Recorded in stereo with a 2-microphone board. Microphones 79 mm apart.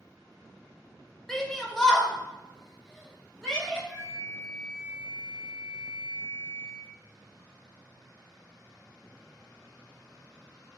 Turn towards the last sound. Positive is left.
turn(degrees=10)  # may be behind; listen again after turning